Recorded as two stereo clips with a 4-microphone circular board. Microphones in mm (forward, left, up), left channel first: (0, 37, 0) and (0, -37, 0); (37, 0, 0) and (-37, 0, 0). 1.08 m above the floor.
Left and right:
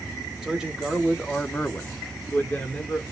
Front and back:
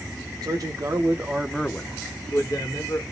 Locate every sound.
0.4 s a man speaking: 170° right, 1.1 m; by 3.0 s 25° left, 1.4 m